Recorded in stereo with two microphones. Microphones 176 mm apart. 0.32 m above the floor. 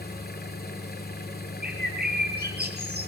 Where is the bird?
60° right (ahead or behind), 6 m.